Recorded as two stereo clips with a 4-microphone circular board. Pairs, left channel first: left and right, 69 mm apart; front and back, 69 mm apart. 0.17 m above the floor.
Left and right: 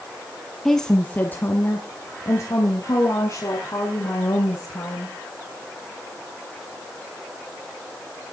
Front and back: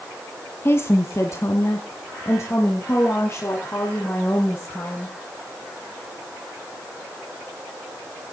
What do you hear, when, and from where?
0.7 s a woman speaking: 5° left, 1.2 m; by 5.2 s 55° left, 5 m